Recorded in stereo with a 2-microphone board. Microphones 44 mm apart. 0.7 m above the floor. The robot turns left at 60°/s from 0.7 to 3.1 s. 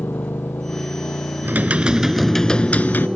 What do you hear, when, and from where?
0.0 s a motorcycle: 120° left; by 3.2 s 25° right
1.4 s typing on a keyboard: 135° right; by 3.1 s 130° left